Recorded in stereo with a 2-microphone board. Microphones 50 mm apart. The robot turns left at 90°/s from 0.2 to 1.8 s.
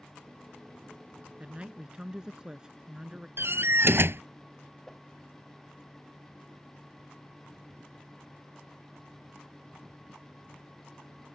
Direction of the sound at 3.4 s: 55° right (ahead or behind).